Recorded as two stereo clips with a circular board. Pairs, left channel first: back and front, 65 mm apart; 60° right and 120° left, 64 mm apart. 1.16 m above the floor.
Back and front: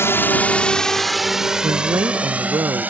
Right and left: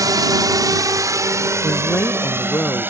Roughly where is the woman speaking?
Ahead.